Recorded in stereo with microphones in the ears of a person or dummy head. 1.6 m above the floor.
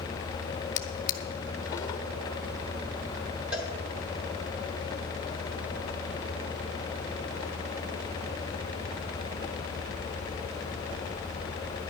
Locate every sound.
0.8 s a drawer: 20° left (ahead or behind), 0.8 m
3.5 s a cowbell: 10° right (ahead or behind), 2 m